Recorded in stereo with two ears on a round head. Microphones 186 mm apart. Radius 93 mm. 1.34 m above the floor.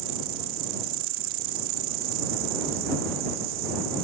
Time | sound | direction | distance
0.0 | an insect | 65° right (ahead or behind) | ?